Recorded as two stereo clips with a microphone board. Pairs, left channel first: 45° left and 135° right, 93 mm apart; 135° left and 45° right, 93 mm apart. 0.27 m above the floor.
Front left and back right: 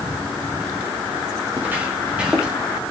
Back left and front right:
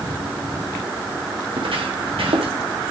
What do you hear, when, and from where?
1.5 s footsteps: 65° right, 3 m; by 2.5 s 50° right, 3 m